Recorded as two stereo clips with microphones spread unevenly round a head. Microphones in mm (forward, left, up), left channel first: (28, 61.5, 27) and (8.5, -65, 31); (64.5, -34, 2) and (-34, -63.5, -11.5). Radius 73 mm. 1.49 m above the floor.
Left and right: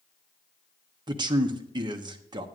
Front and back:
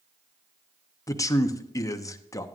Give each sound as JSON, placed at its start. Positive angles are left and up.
{"t": 1.1, "sound": "a man speaking", "azimuth_deg": -40, "distance_m": 0.9}